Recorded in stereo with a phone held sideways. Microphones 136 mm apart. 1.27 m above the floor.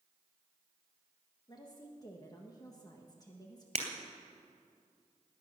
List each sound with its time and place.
1.5 s a woman speaking: 30° left (ahead or behind), 1.4 m
3.8 s breaking glass: 50° right (ahead or behind), 2.5 m